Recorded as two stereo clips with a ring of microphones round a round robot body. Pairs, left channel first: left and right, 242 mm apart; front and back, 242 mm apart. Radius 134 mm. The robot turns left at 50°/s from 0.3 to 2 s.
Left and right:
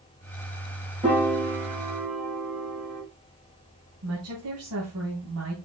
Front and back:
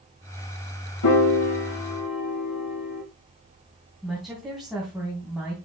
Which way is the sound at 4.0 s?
90° right.